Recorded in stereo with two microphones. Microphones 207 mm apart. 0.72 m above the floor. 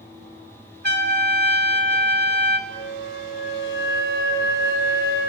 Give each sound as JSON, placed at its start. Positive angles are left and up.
{"t": 0.8, "sound": "a trumpet", "side_deg": -55, "distance_m": 2.5}
{"t": 2.7, "sound": "a flute", "side_deg": 80, "distance_m": 3.0}